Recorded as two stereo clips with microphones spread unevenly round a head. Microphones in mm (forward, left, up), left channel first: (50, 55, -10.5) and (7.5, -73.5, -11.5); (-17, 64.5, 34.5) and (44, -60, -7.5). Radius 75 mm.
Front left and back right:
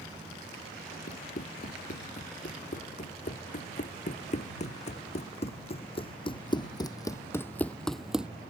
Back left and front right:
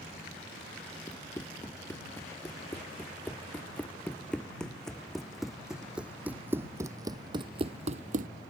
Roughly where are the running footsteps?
Ahead left.